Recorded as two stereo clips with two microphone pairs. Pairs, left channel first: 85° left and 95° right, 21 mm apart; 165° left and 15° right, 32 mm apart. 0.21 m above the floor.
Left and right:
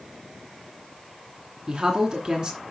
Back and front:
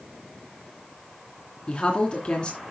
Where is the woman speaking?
140° right, 2.5 m.